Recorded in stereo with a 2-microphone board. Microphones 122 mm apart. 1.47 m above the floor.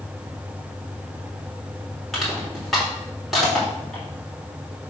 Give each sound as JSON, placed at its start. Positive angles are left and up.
{"t": 2.1, "sound": "crushing", "side_deg": 0, "distance_m": 4.0}